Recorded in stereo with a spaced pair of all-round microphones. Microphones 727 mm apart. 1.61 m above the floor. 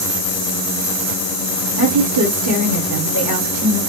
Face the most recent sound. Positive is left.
turn(degrees=-25)  # may be behind; listen again after turning